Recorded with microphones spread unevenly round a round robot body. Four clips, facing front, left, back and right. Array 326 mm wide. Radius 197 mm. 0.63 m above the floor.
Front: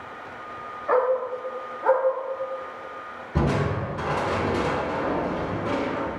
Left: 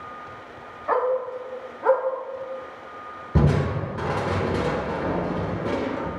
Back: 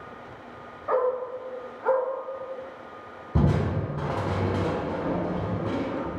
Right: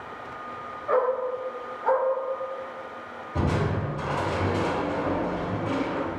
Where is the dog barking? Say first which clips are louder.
Left 1 dB, front 3 dB; 90° left, 1.3 m; by 2.0 s 100° left, 2 m.